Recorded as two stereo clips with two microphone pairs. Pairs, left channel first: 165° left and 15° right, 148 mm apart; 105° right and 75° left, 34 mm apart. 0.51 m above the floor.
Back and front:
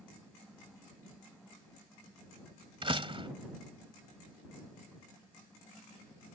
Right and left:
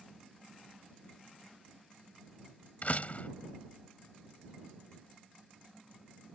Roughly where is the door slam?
Ahead right.